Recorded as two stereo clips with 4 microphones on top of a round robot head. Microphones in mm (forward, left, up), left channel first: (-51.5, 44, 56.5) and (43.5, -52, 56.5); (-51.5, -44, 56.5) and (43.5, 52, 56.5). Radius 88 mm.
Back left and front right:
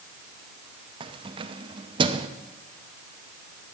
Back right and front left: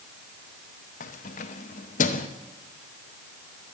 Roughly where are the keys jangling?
Right.